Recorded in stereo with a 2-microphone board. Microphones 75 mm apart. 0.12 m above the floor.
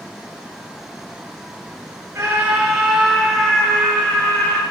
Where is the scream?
30° right (ahead or behind), 2 m; by 4.6 s 25° left (ahead or behind), 3.5 m.